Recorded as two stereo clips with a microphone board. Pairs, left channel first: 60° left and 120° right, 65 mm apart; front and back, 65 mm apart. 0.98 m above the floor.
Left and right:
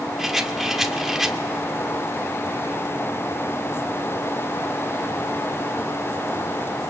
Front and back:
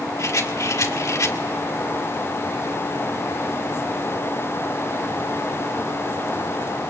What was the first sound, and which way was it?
A rattle, 35° right.